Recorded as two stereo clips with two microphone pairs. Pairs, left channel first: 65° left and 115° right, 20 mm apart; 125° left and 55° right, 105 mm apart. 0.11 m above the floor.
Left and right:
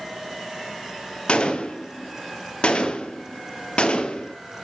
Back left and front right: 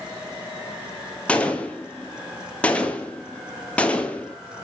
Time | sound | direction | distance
1.3 | a gunshot | 50° left | 0.7 m